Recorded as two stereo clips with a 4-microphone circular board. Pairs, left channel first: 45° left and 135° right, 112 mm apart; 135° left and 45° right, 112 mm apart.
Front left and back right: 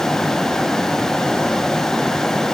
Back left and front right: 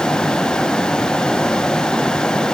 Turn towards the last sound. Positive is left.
No sound to turn to.